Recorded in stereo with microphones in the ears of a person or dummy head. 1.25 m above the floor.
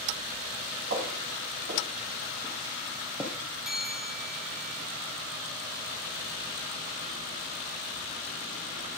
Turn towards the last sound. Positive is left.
turn(degrees=-5)  # may be behind; listen again after turning